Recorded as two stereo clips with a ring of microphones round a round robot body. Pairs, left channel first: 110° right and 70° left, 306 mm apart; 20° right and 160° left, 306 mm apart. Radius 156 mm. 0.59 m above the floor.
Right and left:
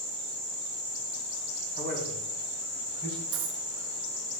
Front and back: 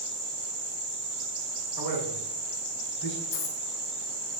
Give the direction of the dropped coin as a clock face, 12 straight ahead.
11 o'clock.